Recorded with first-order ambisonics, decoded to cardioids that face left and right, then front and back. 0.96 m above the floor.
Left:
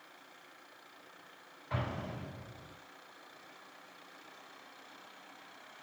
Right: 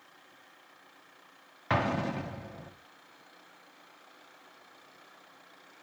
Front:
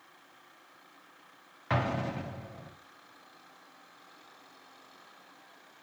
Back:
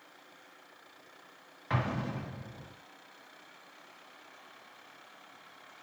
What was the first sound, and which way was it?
An explosion, 75° right.